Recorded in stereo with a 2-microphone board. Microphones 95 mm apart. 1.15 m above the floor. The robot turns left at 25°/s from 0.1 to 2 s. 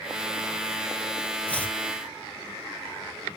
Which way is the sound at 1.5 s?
10° left (ahead or behind).